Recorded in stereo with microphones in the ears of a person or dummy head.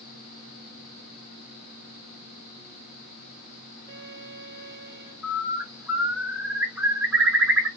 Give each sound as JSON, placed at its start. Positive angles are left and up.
{"t": 3.9, "sound": "a violin", "side_deg": -15, "distance_m": 1.8}
{"t": 5.2, "sound": "a bird", "side_deg": -10, "distance_m": 1.4}